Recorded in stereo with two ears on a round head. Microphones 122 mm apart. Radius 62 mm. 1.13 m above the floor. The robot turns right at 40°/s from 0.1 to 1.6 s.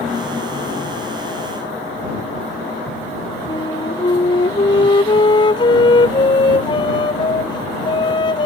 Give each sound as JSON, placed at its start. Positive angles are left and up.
{"t": 3.5, "sound": "a flute", "side_deg": 35}